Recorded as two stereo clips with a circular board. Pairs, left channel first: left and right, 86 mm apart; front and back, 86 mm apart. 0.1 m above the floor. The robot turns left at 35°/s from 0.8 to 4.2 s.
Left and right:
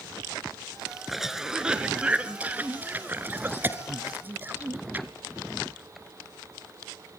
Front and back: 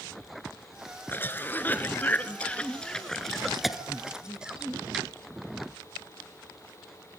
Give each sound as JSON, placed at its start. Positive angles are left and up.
{"t": 1.1, "sound": "a cough", "azimuth_deg": -5, "distance_m": 1.3}